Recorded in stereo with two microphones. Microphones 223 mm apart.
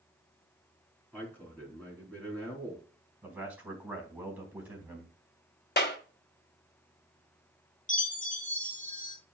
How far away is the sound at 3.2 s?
About 4 m.